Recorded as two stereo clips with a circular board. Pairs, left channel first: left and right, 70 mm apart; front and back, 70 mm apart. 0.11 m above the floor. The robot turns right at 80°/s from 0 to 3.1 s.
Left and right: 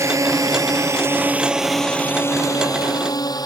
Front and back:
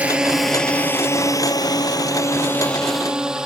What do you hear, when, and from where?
0.0 s a drone: 115° right; by 3.5 s 100° left